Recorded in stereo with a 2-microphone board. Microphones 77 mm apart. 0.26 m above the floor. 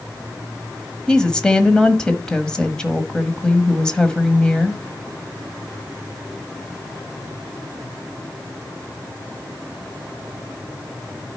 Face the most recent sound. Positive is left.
turn(degrees=10)  # may be behind; listen again after turning